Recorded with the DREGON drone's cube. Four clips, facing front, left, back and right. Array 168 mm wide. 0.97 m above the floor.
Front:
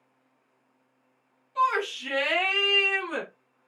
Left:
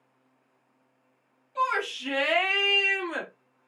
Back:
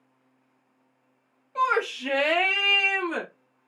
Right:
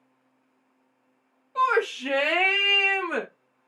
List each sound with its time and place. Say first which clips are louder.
1.6 s a shout: right 5 dB, back 1 dB; 140° right, 2.0 m; by 3.3 s 105° right, 1.6 m